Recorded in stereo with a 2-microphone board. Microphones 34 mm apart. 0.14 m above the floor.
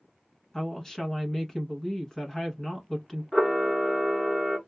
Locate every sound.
0.5 s a woman speaking: 15° left (ahead or behind), 1.0 m
3.3 s a camera shutter: centre (ahead or behind), 1.0 m